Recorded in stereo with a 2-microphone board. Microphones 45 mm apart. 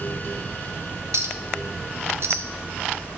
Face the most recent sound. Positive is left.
turn(degrees=-65)  # may be behind; listen again after turning